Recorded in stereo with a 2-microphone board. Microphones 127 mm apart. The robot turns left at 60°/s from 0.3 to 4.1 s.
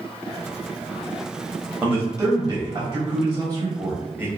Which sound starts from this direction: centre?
A man speaking, at 1.8 s.